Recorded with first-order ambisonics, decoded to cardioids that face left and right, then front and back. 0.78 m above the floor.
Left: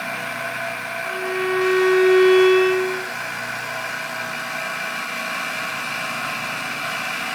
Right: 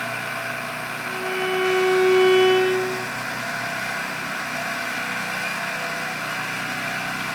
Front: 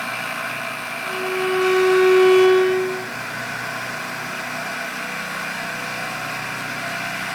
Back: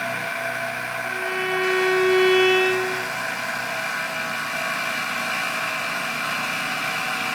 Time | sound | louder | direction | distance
1.0 | a violin | left 2 dB, front 4 dB | 160° left | 1.8 m